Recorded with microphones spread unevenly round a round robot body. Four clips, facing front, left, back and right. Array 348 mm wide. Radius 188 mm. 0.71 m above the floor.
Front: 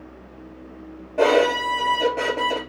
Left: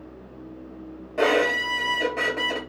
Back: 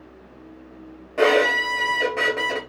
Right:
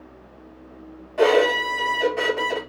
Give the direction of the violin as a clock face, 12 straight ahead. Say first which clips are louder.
Right 4 dB, front 1 dB; 7 o'clock.